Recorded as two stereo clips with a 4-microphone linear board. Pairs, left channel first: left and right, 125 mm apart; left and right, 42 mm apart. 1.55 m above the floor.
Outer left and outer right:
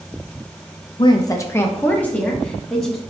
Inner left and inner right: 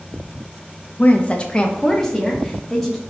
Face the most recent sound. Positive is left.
turn(degrees=5)  # may be behind; listen again after turning